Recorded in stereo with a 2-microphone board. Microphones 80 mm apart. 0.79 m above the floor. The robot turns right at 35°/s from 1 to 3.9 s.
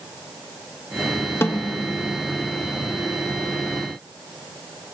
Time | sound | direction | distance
1.4 | a snare drum | 30° left (ahead or behind) | 0.8 m